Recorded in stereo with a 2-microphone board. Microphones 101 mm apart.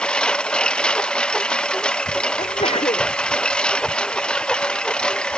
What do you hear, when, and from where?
0.0 s a lawn mower: 10° left (ahead or behind)
2.4 s a sneeze: 85° left